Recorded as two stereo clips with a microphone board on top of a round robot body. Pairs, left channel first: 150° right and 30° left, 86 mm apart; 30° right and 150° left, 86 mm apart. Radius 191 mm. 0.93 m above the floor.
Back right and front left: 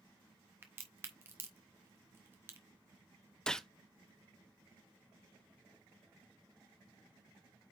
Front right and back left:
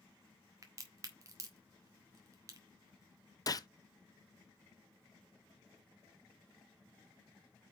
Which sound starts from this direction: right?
A gunshot, at 3.5 s.